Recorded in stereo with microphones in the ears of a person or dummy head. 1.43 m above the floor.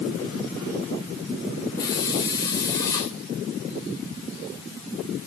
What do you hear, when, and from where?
1.8 s a hiss: 20° left (ahead or behind), 3.5 m